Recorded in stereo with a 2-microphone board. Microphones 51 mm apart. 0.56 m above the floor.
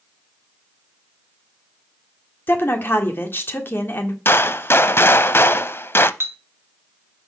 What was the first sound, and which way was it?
A woman speaking, 50° left (ahead or behind).